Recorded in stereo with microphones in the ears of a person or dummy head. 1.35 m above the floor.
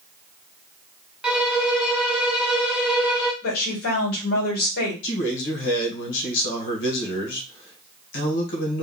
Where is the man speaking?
70° left (ahead or behind), 1.7 m.